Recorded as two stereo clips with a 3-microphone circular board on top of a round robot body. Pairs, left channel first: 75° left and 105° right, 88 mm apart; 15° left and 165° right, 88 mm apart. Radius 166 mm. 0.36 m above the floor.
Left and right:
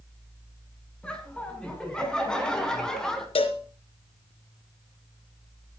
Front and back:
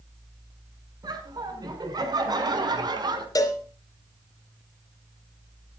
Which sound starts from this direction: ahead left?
A cowbell, at 3.4 s.